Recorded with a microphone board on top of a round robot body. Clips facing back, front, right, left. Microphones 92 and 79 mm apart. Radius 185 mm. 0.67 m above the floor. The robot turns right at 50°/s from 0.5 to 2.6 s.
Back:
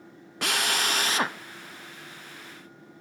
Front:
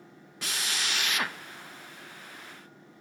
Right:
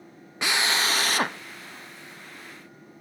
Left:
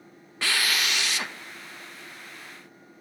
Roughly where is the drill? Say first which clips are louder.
Back 7 dB, right 2 dB; behind.